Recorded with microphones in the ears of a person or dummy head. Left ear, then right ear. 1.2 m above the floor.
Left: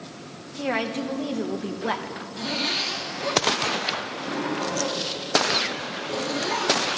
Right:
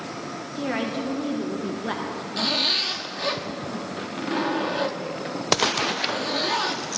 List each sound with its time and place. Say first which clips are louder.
0.6 s a woman speaking: left 2 dB; 35° left (ahead or behind), 1.1 m
2.4 s a zipper: right 4 dB; 30° right (ahead or behind), 1.2 m